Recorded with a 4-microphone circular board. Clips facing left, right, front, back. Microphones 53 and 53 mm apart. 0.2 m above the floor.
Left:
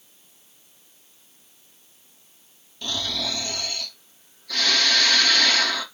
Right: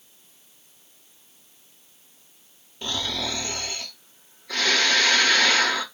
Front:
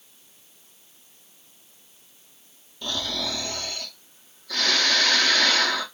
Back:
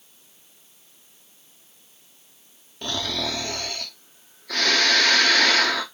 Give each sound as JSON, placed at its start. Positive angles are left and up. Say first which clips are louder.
{"t": 2.8, "sound": "snoring", "louder": "even, back 2 dB", "azimuth_deg": -155, "distance_m": 0.8}